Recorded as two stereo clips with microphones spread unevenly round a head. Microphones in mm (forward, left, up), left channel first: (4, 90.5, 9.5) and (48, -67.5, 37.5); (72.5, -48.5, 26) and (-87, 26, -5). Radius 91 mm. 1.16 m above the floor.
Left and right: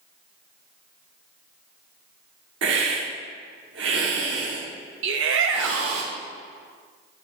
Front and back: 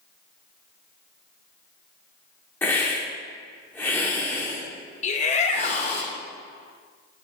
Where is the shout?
80° right, 1.8 m.